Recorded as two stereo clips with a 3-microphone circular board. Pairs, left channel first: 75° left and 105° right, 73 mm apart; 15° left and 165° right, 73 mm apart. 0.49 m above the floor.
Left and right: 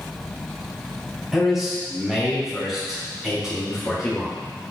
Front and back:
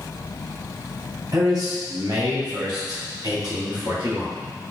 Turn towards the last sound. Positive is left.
turn(degrees=170)